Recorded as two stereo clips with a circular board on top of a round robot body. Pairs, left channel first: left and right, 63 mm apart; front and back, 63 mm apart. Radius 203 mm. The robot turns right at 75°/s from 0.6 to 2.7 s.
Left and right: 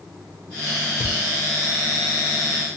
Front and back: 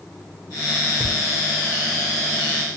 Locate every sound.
1.0 s a thud: 115° left, 1.8 m; by 1.2 s 130° left, 1.8 m